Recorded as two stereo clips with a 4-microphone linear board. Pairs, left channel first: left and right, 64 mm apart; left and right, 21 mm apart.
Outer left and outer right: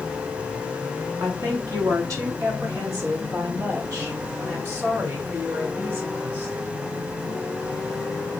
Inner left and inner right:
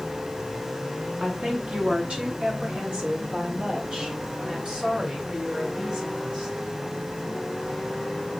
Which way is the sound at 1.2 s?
65° right (ahead or behind).